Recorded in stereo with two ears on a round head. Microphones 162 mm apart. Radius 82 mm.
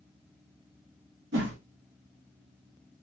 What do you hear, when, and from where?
1.3 s a whoosh: 70° right (ahead or behind), 0.9 m